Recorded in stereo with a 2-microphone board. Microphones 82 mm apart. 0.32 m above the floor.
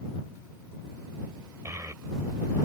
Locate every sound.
1.6 s a child speaking: 40° right (ahead or behind)